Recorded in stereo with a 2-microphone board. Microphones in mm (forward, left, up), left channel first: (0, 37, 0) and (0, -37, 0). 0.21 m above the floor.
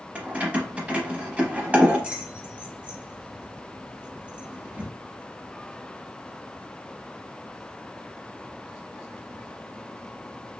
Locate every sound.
0.1 s keys jangling: 20° right (ahead or behind), 0.7 m